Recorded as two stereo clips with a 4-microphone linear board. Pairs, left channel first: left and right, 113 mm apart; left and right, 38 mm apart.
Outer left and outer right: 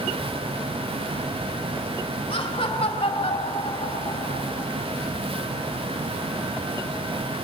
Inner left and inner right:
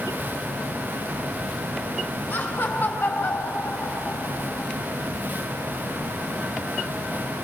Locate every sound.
2.3 s laughter: 60° left (ahead or behind), 3 m